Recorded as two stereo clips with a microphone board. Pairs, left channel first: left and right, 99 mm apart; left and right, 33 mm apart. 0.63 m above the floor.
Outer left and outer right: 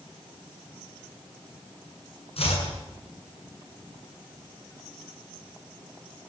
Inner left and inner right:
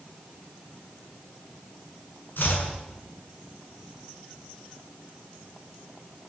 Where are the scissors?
I don't hear scissors.